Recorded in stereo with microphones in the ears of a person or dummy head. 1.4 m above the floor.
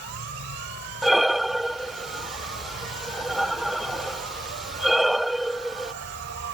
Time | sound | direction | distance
0.0 | an insect | 60° right (ahead or behind) | ?
1.0 | breathing | centre (ahead or behind) | ?